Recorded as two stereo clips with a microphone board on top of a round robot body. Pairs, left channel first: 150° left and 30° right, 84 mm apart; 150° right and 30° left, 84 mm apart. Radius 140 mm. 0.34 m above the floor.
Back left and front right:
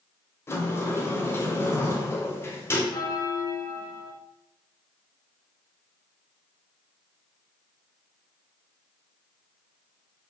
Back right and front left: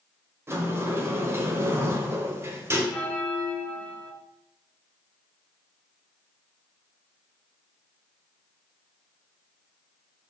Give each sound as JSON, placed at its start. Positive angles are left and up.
{"t": 0.5, "sound": "a sliding door", "azimuth_deg": 90, "distance_m": 0.8}
{"t": 2.9, "sound": "a bell", "azimuth_deg": 140, "distance_m": 0.8}